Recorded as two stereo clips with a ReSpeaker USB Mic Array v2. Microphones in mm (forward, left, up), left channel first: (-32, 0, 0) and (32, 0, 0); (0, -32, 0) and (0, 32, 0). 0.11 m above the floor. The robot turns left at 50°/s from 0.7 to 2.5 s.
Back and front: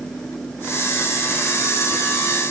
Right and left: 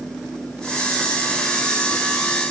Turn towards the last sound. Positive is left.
No sound to turn to.